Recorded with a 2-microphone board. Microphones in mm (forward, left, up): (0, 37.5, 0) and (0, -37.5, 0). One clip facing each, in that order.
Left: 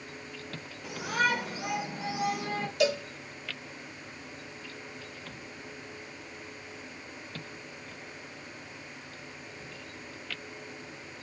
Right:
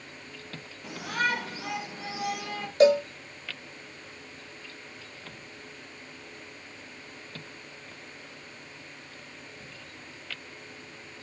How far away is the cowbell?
About 1.0 m.